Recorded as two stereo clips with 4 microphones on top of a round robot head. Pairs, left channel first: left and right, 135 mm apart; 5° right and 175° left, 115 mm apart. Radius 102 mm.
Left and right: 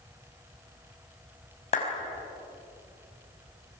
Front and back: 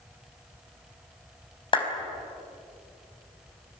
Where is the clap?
45° left, 5 m.